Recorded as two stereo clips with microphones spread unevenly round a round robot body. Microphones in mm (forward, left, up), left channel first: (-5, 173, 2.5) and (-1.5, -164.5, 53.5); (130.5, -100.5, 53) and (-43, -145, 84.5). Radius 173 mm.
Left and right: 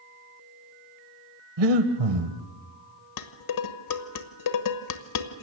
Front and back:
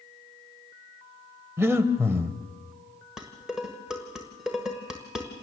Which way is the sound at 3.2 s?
105° left.